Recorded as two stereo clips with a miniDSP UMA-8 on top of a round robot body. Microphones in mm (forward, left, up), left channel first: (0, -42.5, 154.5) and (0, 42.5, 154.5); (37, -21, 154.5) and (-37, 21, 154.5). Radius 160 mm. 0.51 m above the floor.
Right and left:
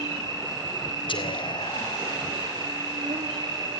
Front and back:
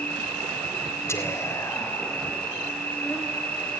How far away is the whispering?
About 3.5 m.